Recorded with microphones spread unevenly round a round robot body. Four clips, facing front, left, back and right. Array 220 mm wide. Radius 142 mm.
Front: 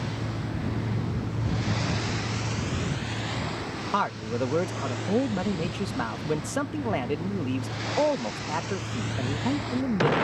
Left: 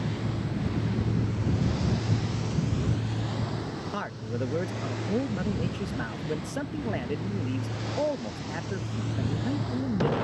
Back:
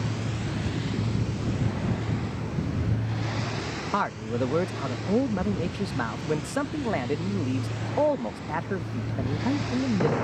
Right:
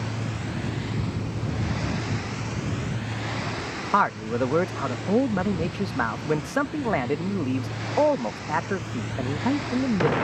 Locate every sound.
3.9 s a man speaking: 90° right